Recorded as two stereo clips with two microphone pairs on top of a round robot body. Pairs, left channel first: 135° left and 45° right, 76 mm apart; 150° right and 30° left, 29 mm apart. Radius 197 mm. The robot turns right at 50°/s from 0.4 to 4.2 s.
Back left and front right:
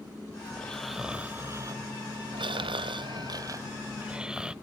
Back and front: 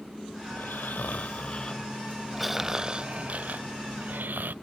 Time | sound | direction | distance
0.5 | snoring | 150° right | ?